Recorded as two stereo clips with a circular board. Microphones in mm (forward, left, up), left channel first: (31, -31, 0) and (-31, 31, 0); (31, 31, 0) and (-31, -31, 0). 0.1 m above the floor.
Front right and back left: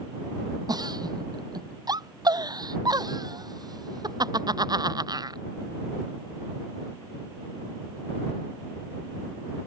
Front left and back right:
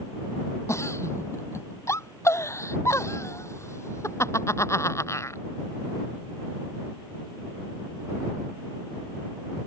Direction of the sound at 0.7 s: 100° left.